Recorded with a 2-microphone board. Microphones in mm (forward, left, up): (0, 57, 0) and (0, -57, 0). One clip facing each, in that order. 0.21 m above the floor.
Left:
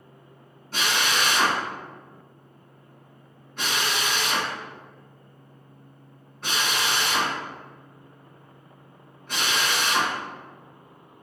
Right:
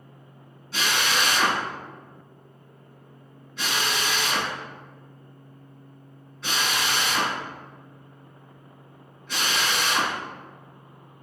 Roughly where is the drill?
Left.